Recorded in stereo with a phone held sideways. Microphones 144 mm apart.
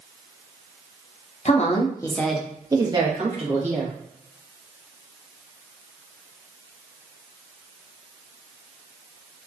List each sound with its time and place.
1.4 s a woman speaking: 55° left (ahead or behind), 0.7 m; by 3.9 s 55° right (ahead or behind), 1.3 m